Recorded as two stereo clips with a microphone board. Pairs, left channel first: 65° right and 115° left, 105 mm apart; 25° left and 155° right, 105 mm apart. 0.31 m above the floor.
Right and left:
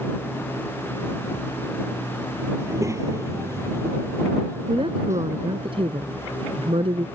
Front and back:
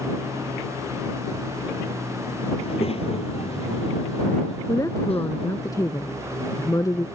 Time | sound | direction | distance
2.6 | a child speaking | 50° left | ?
4.7 | a woman speaking | 80° left | ?